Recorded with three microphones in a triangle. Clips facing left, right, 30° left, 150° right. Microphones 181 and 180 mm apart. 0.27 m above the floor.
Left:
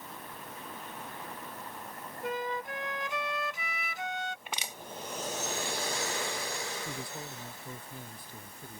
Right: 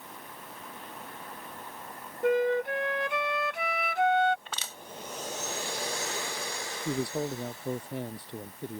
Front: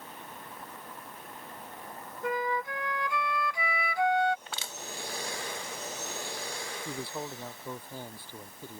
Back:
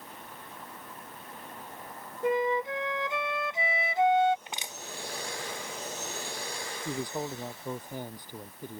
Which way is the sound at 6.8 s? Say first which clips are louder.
Right 11 dB, back 5 dB; 75° right.